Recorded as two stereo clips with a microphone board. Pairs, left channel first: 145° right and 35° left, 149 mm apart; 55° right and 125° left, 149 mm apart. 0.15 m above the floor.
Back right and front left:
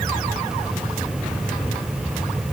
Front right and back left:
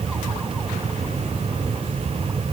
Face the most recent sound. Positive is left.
No sound to turn to.